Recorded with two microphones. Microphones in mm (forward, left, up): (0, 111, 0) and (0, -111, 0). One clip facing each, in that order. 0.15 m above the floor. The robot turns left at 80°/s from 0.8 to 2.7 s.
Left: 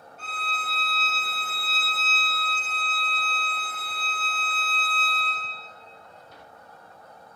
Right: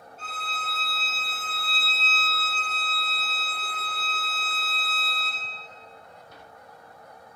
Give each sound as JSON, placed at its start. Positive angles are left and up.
{"t": 0.2, "sound": "a violin", "azimuth_deg": 105, "distance_m": 1.2}